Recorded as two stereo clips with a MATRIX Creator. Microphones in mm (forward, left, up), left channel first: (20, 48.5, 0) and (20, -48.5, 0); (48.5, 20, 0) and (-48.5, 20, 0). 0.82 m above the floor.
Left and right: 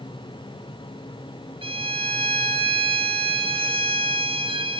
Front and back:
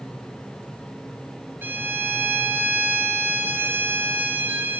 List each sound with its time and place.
1.6 s a violin: 110° right, 3.5 m